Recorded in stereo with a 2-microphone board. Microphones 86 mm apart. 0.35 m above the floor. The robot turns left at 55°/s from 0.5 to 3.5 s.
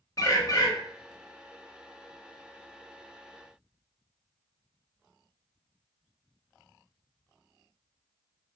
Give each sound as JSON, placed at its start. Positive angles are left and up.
{"t": 0.2, "sound": "a bird", "side_deg": 40, "distance_m": 0.6}